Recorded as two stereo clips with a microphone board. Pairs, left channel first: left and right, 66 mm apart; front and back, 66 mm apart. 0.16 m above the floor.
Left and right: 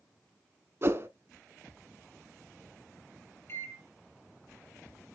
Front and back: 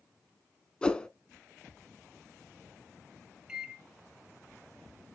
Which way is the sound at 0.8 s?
70° right.